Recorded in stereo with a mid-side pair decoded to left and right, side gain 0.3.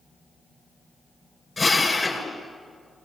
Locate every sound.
1.6 s a drill: 35° left, 9 m